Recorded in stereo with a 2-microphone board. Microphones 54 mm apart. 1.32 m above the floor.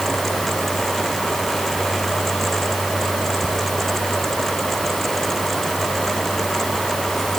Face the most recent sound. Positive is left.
No sound to turn to.